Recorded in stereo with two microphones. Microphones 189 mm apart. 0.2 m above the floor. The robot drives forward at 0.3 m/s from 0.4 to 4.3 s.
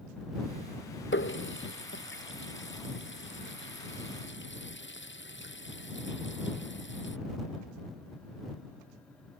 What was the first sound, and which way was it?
A running tap, 80° left.